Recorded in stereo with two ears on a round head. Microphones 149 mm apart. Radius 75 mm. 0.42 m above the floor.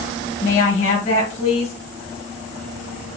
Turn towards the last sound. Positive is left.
turn(degrees=40)  # may be behind; listen again after turning